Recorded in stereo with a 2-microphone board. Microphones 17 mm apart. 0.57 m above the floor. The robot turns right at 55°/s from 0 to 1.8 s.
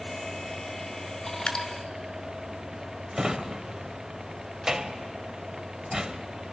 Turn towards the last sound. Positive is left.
turn(degrees=-40)  # may be behind; listen again after turning